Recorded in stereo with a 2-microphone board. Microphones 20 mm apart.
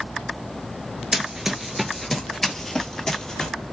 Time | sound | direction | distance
1.1 | running footsteps | 20° right (ahead or behind) | 0.7 m